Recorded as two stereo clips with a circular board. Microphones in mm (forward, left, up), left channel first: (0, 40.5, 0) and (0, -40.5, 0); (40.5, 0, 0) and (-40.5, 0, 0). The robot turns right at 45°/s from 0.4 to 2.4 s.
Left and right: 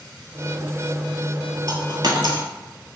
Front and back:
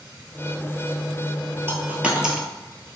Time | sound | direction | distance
1.7 | a dropped coin | 125° right | 0.6 m